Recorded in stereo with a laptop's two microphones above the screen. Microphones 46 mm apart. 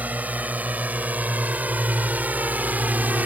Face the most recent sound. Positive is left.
turn(degrees=-40)  # may be behind; listen again after turning